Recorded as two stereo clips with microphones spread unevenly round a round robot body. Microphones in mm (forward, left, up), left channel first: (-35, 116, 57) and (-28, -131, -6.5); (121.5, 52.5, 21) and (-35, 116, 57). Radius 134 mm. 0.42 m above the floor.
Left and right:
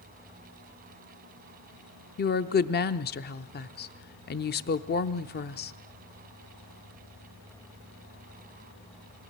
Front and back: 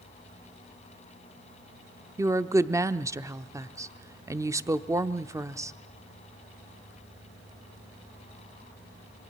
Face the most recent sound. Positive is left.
turn(degrees=80)